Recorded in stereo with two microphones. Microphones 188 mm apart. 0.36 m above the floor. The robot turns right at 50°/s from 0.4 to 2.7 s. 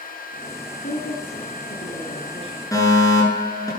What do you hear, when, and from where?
0.8 s a woman speaking: 65° left, 4.5 m; by 2.6 s 150° left, 4.5 m
2.7 s a fire alarm: 20° left (ahead or behind), 8.5 m